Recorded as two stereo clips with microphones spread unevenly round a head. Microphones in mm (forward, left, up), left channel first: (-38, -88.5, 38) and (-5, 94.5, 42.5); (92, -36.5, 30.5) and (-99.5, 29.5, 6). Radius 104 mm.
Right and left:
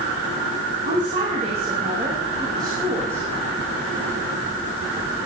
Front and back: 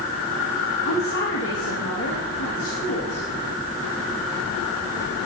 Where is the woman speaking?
30° left, 2.5 m; by 3.2 s straight ahead, 3 m.